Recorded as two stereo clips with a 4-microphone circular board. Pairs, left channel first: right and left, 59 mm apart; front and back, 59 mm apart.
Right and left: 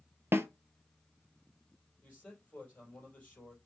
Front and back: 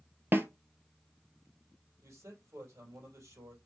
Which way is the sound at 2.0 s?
155° right.